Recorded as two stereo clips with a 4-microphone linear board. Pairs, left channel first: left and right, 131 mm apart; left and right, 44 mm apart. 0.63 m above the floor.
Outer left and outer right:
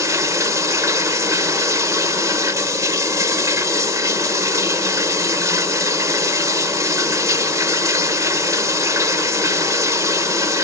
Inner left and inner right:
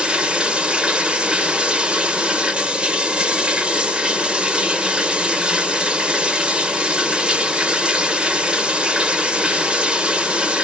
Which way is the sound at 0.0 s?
25° right (ahead or behind).